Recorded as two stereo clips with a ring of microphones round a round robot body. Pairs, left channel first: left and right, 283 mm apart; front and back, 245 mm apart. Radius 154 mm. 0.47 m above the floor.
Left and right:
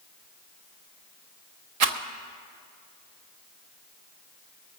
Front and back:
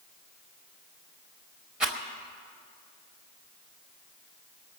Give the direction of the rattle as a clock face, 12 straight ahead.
3 o'clock.